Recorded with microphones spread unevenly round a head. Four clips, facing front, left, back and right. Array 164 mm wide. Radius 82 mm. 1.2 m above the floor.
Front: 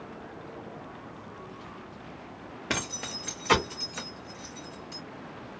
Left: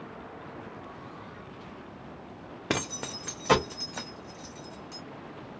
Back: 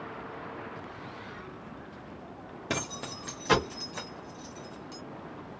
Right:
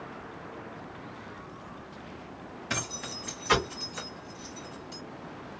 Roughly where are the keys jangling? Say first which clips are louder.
Left 5 dB, even; left.